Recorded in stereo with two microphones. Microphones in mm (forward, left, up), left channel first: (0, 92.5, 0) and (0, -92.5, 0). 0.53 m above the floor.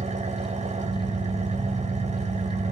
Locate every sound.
0.0 s an engine running: 35° right (ahead or behind), 1.4 m